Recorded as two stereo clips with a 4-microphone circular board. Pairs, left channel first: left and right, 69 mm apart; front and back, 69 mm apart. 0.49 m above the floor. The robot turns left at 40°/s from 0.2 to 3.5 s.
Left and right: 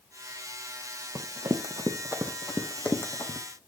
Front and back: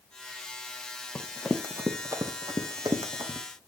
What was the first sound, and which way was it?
Running footsteps, 70° right.